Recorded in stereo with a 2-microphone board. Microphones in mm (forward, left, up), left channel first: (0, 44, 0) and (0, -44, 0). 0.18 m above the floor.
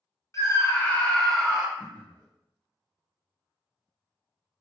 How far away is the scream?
About 1.5 m.